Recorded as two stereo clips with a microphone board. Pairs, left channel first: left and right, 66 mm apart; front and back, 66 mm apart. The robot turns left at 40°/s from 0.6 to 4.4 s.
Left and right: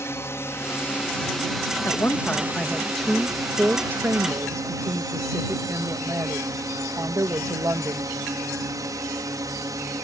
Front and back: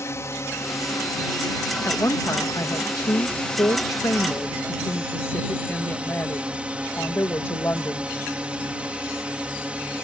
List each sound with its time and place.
0.0 s a drone: 45° left; by 10.0 s 110° right
1.9 s a woman speaking: 50° left; by 8.1 s 55° right